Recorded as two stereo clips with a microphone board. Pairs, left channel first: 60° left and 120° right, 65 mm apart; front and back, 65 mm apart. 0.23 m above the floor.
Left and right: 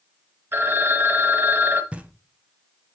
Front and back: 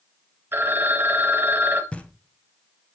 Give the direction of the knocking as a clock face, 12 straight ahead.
2 o'clock.